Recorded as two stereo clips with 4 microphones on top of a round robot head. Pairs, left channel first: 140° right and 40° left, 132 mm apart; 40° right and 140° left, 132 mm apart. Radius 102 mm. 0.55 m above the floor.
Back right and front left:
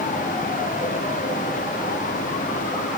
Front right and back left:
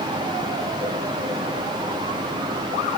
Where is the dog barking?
No dog barking in this recording.